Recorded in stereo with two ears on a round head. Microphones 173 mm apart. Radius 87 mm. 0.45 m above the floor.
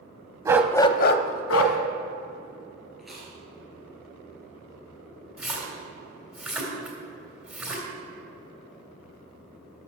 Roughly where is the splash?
Centre.